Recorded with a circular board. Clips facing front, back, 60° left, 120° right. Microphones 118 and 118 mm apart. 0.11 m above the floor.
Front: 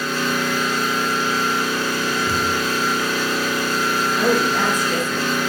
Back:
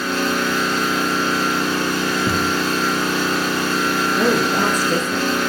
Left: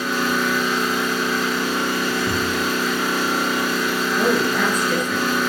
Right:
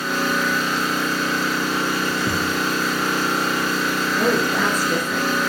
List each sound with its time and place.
0.0 s an engine running: 140° left, 6 m
2.3 s a thud: straight behind, 1.5 m
4.2 s a woman speaking: 160° left, 1.4 m